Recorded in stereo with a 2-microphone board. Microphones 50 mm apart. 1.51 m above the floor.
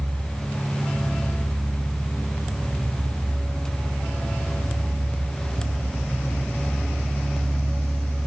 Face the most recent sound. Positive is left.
No sound to turn to.